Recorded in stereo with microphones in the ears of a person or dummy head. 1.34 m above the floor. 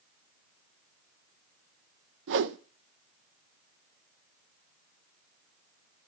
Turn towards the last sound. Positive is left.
turn(degrees=-65)  # may be behind; listen again after turning